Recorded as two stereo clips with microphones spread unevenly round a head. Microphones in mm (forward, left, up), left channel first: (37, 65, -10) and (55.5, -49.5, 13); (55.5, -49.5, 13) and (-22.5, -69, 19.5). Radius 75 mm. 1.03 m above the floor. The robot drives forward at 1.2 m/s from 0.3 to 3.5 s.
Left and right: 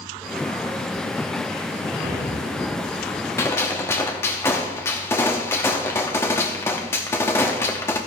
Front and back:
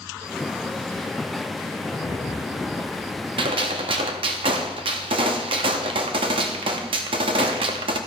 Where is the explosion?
35° right, 3.5 m; by 3.2 s 55° right, 2.5 m.